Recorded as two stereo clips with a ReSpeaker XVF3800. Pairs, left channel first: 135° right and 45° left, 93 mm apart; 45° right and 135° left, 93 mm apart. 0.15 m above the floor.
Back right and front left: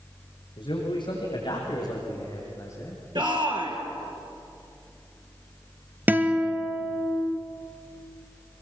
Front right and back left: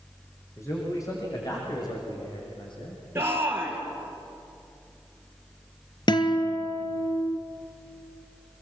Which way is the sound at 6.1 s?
25° right.